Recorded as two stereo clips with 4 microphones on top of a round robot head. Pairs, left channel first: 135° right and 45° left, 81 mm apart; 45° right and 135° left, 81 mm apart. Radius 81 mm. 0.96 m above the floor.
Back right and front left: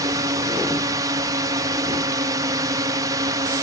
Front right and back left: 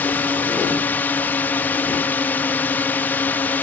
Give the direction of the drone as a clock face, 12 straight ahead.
11 o'clock.